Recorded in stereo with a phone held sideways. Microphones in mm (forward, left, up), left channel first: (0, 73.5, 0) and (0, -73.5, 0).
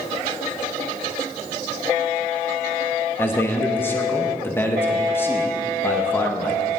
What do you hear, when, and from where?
3.2 s a man speaking: 15° left (ahead or behind), 0.9 m